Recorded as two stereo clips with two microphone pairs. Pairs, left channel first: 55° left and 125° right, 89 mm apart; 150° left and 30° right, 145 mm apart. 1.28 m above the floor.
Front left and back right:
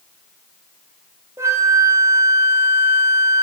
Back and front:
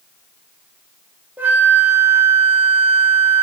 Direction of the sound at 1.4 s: 100° right.